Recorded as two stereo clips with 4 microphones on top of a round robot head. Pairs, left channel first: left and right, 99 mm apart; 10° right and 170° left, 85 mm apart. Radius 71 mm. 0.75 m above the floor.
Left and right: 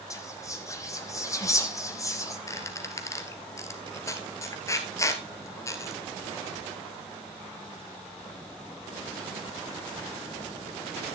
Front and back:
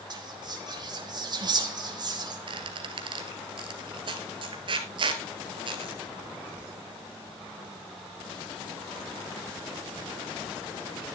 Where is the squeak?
150° left, 1.7 m.